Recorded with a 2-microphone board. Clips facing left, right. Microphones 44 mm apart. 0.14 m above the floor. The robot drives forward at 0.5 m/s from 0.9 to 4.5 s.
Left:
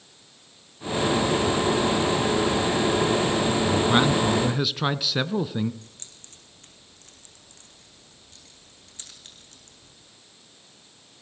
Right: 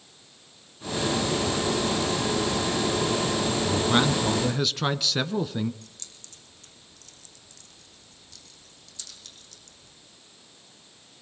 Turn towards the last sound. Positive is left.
turn(degrees=30)  # may be behind; listen again after turning